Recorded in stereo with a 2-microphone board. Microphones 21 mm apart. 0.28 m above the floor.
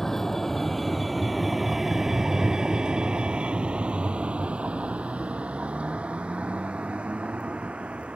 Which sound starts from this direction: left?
A vehicle, at 0.0 s.